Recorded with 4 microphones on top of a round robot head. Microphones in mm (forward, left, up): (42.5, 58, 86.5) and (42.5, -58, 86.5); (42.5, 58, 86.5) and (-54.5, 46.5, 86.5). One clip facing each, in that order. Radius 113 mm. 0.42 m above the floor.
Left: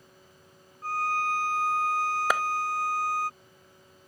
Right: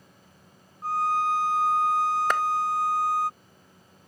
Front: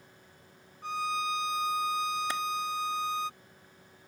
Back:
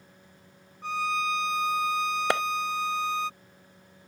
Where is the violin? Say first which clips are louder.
Right 4 dB, back 3 dB; 165° right.